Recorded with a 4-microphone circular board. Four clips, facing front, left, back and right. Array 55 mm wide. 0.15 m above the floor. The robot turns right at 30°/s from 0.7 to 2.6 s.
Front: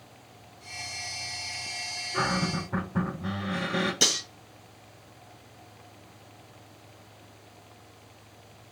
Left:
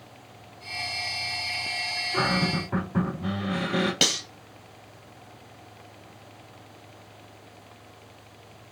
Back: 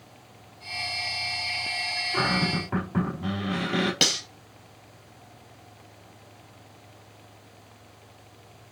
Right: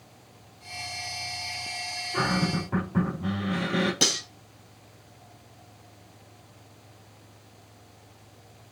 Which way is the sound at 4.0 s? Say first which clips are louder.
Left 2 dB, back 1 dB; 140° left.